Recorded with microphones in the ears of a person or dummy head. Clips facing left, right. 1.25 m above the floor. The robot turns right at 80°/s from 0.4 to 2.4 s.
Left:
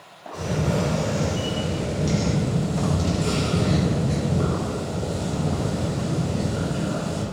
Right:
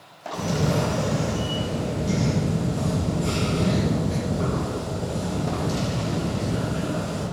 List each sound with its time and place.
0.3 s a camera shutter: 45° right, 1.0 m; by 7.2 s 115° left, 1.0 m